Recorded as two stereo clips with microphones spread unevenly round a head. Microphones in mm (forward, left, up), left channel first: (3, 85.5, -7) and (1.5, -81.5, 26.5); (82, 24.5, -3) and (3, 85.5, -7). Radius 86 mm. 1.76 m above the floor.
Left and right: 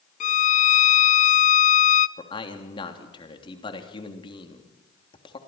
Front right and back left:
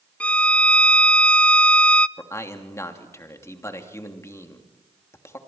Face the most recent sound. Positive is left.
turn(degrees=25)